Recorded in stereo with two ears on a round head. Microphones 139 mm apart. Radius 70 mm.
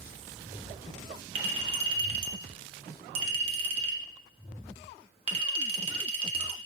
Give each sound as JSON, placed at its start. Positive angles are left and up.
{"t": 1.4, "sound": "a clink", "side_deg": -40, "distance_m": 0.9}